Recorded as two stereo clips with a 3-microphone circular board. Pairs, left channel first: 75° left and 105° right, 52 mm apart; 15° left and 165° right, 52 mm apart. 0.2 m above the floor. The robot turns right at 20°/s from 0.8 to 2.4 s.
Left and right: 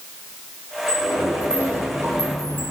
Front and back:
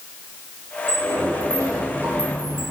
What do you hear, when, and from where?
0.9 s a sliding door: 150° right, 3.5 m; by 2.7 s 115° right, 3.5 m